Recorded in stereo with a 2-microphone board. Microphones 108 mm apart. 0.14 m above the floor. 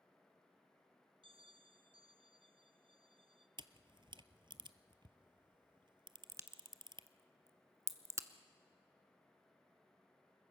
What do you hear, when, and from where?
1.2 s a bell: 55° right (ahead or behind), 1.1 m
3.6 s a camera shutter: 50° right (ahead or behind), 0.7 m
6.3 s a crack: 30° right (ahead or behind), 0.9 m